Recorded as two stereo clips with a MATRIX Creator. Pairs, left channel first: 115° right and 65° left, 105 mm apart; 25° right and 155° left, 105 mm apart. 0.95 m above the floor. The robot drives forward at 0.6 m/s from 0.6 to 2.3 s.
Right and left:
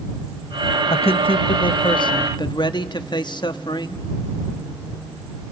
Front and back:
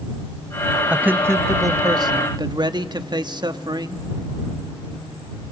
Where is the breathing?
I don't hear breathing.